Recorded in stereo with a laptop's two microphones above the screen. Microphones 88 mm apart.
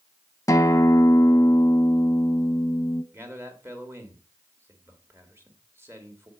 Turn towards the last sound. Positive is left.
turn(degrees=-30)  # may be behind; listen again after turning